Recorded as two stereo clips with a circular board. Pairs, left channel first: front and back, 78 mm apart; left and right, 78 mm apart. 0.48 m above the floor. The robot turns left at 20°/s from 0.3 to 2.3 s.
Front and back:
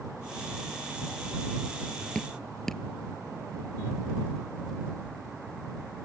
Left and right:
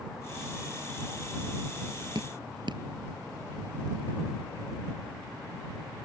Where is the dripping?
80° right; by 2.8 s 85° right.